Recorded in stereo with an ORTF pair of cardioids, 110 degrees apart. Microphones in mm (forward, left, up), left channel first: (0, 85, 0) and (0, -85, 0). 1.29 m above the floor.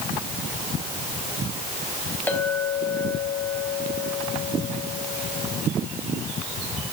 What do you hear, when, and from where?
2.3 s a clink: 10° left, 4.5 m